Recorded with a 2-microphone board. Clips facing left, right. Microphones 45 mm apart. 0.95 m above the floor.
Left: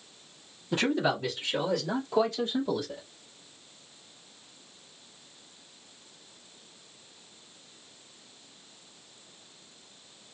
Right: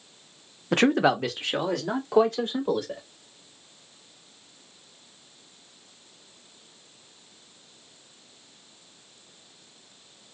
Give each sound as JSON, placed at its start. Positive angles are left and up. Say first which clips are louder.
{"t": 0.7, "sound": "a man speaking", "louder": "right 6 dB", "side_deg": -60, "distance_m": 0.7}